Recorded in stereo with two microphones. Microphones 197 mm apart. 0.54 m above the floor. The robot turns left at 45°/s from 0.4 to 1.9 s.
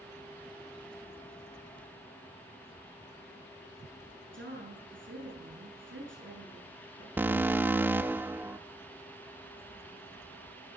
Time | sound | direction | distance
4.3 | a woman speaking | 80° right | 8 m
7.2 | an alarm | 10° right (ahead or behind) | 0.5 m